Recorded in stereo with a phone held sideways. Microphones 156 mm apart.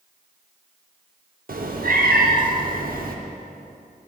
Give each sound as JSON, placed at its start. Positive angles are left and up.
{"t": 1.5, "sound": "a cat meowing", "side_deg": -65, "distance_m": 0.7}